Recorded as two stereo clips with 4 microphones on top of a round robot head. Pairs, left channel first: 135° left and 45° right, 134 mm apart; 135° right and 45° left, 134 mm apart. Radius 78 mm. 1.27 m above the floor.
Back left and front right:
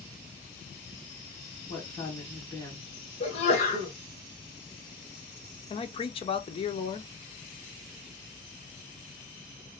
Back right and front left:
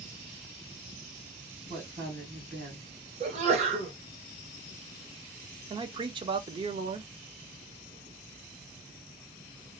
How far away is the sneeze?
About 1.3 m.